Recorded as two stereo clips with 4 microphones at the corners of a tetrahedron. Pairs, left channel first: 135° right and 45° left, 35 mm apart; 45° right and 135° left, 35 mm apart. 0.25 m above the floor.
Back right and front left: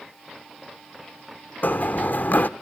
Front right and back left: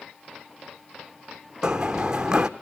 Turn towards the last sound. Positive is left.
turn(degrees=-150)